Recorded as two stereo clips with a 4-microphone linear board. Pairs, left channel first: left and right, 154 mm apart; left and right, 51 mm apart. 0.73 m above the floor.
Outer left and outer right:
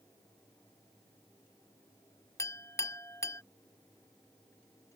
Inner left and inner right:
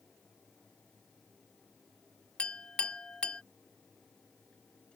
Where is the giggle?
No giggle in this recording.